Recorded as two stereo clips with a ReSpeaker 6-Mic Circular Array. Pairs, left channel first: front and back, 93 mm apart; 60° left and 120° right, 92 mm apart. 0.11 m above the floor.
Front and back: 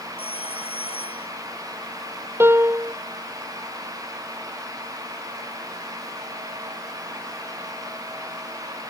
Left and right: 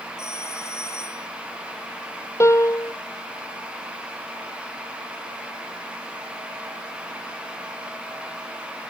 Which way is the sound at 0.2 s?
Straight ahead.